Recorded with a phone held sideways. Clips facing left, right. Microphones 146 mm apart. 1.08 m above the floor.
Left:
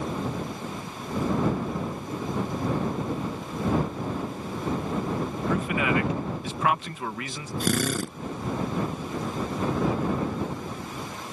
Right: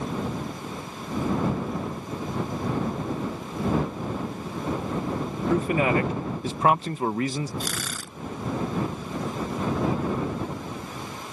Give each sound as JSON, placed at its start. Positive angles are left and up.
{"t": 5.5, "sound": "a man speaking", "side_deg": -35}
{"t": 7.6, "sound": "a drill", "side_deg": 55}